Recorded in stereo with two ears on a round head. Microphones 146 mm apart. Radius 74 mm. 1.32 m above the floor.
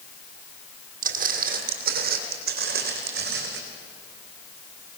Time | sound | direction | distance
1.0 | footsteps | 60° right (ahead or behind) | 2.5 m